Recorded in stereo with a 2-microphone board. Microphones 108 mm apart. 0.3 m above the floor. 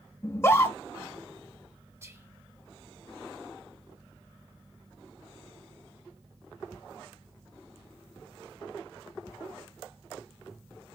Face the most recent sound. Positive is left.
turn(degrees=-25)  # may be behind; listen again after turning